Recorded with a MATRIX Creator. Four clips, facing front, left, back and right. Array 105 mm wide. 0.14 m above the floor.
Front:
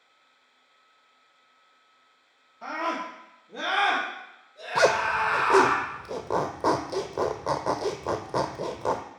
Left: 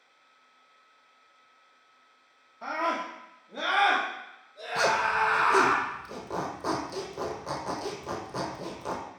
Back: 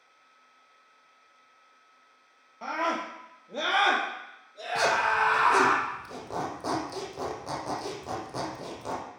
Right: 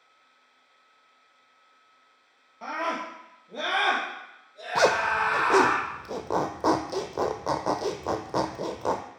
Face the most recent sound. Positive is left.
turn(degrees=-50)